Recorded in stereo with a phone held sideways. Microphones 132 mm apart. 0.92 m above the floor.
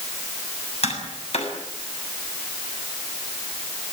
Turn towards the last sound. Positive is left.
turn(degrees=60)  # may be behind; listen again after turning